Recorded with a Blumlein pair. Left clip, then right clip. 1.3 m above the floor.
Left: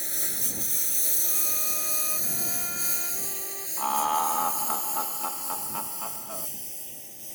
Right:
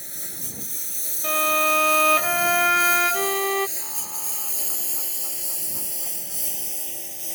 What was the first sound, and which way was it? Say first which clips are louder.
A lawn mower: left 4 dB; 15° left.